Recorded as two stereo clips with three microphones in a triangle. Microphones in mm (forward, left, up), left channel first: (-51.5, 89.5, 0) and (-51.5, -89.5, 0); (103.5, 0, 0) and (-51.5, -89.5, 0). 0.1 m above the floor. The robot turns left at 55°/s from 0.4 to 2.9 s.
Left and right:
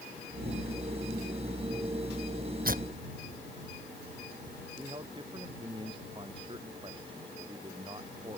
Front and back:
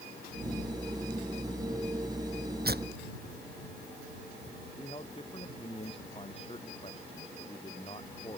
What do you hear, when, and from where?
2.6 s tearing paper: 125° right; by 4.6 s 135° right
4.8 s a man speaking: 30° right